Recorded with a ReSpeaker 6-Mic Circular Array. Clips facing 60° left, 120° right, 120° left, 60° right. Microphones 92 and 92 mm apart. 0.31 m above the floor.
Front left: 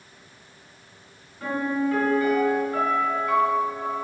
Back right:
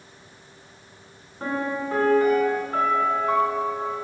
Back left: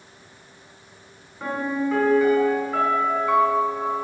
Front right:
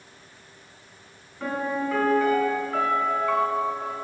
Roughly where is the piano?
Behind.